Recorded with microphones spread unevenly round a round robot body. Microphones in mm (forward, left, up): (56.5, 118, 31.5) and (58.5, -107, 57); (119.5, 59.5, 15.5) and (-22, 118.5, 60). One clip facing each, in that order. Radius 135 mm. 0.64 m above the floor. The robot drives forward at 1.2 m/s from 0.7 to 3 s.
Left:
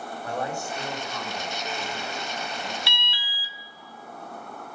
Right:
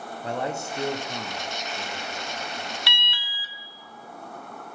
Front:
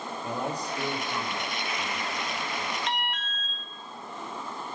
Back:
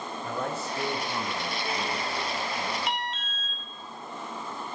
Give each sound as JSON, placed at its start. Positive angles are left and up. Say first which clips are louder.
{"t": 0.2, "sound": "a man speaking", "louder": "right 2 dB, even", "azimuth_deg": -30, "distance_m": 1.0}
{"t": 2.9, "sound": "an alarm", "louder": "even, even", "azimuth_deg": -110, "distance_m": 0.8}